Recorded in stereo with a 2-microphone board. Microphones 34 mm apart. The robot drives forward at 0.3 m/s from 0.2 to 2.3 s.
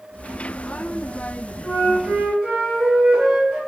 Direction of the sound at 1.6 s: 25° right (ahead or behind).